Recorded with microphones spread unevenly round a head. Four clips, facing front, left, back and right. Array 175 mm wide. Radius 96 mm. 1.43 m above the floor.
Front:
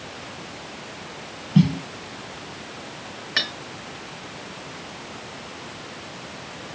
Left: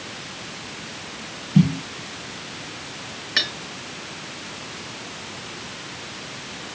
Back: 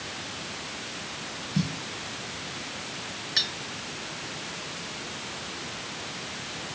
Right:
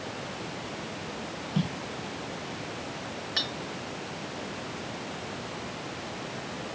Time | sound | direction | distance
1.6 | a snare drum | 40° left | ?
3.4 | cutlery clinking | 55° left | ?